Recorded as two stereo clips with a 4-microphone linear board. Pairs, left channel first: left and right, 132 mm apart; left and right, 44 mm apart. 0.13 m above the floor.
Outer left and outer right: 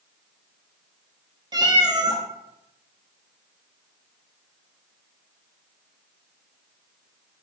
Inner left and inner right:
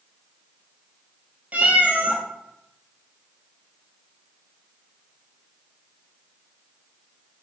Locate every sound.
1.5 s a cat meowing: 35° right (ahead or behind), 0.5 m